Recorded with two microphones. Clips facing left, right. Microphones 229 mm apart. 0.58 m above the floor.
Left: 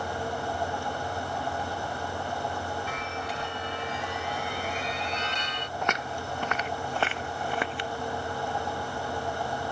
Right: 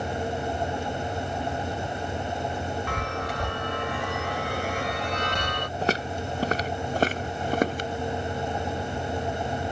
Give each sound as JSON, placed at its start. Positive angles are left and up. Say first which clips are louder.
{"t": 2.9, "sound": "a chime", "louder": "right 4 dB", "side_deg": -65}
{"t": 5.8, "sound": "footsteps", "louder": "right 6 dB", "side_deg": -35}